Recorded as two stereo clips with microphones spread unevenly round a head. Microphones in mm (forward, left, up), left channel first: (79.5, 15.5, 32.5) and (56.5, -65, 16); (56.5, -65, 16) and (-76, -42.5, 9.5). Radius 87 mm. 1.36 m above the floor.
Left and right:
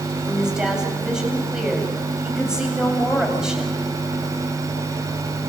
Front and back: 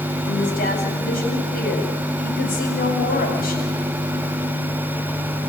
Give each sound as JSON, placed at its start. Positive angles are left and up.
{"t": 0.2, "sound": "a woman speaking", "azimuth_deg": -25, "distance_m": 8.5}